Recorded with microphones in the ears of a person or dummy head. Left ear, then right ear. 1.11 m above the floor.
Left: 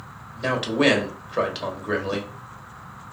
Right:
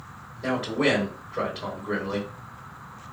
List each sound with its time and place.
0.3 s a man speaking: 40° left (ahead or behind), 1.2 m